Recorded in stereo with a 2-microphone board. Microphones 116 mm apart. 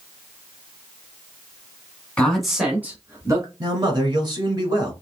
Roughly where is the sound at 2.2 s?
Centre.